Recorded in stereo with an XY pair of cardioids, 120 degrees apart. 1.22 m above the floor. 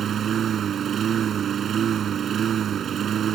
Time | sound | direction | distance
0.0 | a lawn mower | 50° right | ?